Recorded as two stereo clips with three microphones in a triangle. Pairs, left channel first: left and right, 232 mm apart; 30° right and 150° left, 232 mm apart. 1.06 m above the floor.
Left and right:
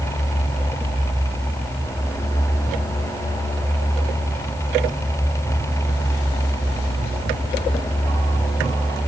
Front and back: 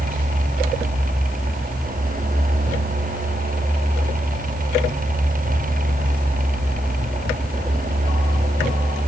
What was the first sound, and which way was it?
Only background noise.